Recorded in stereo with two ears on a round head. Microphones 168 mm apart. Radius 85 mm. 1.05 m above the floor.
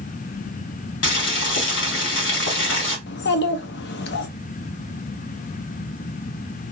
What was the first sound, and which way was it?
Boiling, 70° left (ahead or behind).